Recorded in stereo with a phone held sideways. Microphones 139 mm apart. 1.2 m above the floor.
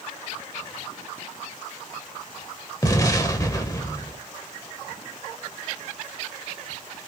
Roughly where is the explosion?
Left.